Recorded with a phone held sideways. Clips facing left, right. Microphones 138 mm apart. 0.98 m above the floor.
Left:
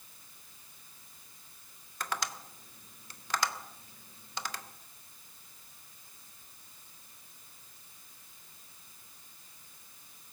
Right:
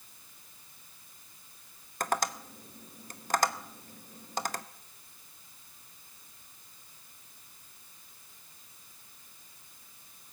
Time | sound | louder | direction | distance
2.0 | tapping | right 6 dB | 45° right (ahead or behind) | 0.7 m